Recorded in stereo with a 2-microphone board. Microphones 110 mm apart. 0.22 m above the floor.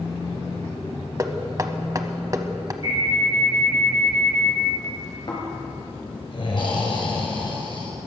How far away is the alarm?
About 6 m.